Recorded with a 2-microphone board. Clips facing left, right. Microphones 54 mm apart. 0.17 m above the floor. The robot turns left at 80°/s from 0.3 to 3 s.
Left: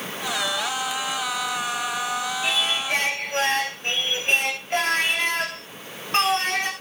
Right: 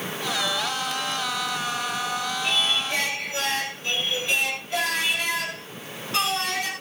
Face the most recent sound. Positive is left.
turn(degrees=40)